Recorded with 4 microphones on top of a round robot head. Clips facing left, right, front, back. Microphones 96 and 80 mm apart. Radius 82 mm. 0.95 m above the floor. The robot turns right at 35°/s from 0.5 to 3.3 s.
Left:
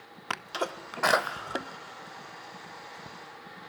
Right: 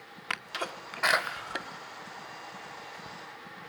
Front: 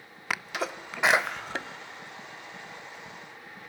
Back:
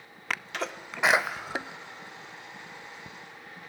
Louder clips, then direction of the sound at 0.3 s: Left 4 dB, front 1 dB; 70° left.